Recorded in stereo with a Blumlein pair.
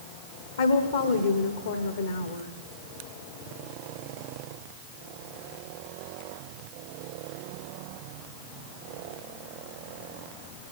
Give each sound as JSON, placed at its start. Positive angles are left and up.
{"t": 0.6, "sound": "a woman speaking", "azimuth_deg": 65, "distance_m": 1.1}